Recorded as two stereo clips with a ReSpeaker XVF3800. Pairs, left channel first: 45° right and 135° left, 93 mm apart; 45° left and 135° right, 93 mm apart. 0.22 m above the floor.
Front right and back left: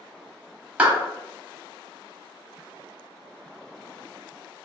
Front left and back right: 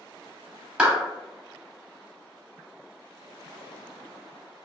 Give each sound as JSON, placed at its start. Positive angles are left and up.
{"t": 0.8, "sound": "a clap", "azimuth_deg": 170, "distance_m": 0.7}